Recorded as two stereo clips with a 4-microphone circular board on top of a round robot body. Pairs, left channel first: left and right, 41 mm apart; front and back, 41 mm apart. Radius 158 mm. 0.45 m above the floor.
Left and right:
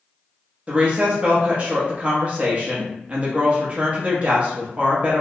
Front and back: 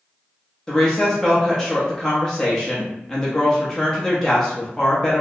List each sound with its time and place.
0.7 s a woman speaking: 70° right, 0.8 m